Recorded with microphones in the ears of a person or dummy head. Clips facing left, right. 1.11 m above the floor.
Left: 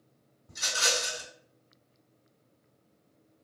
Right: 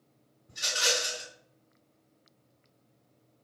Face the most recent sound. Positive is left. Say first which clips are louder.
# right 1 dB
turn(degrees=65)  # may be behind; listen again after turning